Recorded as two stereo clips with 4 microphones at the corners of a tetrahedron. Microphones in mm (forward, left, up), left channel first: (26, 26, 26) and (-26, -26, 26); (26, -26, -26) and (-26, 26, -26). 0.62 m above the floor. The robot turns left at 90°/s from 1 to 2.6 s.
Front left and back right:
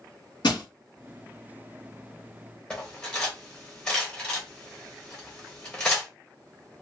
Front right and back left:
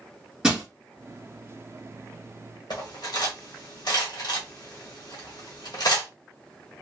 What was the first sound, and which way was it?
Crushing, 60° left.